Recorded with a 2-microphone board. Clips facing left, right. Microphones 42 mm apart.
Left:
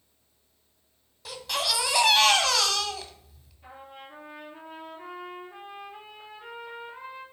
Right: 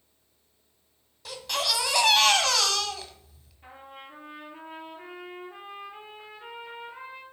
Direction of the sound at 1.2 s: Centre (ahead or behind).